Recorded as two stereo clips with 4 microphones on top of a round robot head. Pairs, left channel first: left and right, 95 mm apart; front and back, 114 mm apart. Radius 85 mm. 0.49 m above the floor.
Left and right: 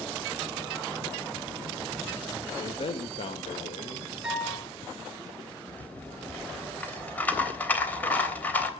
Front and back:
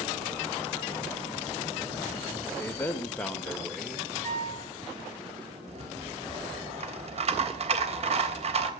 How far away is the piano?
About 7.5 m.